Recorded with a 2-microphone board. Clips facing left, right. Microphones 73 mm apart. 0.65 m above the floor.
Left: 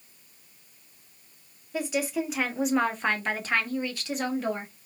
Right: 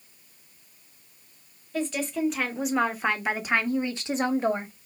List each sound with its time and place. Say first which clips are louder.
1.7 s a woman speaking: even; 10° left (ahead or behind), 1.3 m; by 4.7 s 30° right (ahead or behind), 1.1 m